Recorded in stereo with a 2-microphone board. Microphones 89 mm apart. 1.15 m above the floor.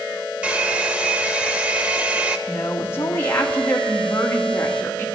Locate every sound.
0.4 s a hair dryer: 15° right (ahead or behind), 1.0 m
2.5 s a woman speaking: 25° left (ahead or behind), 2 m